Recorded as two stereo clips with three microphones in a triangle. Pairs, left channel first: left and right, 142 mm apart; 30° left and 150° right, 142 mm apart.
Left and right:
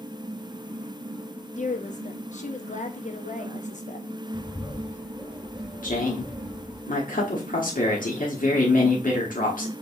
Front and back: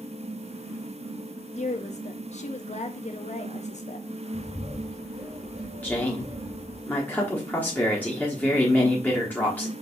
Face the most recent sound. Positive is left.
turn(degrees=105)